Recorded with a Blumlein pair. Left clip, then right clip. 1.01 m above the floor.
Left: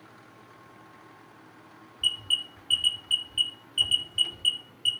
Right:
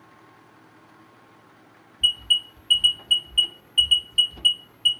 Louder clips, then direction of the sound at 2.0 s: Right 6 dB; 70° right.